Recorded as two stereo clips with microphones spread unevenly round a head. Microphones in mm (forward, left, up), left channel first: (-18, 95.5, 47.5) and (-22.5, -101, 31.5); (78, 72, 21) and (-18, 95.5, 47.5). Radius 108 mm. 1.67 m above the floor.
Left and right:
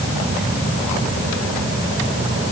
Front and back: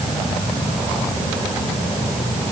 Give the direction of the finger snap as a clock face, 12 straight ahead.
I don't hear a finger snap.